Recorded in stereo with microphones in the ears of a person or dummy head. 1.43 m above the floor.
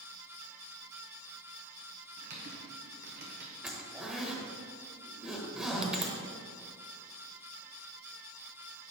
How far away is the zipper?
About 1.1 m.